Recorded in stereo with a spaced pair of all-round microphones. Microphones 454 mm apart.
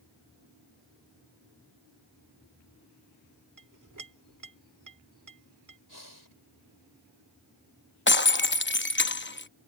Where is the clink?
40° right (ahead or behind).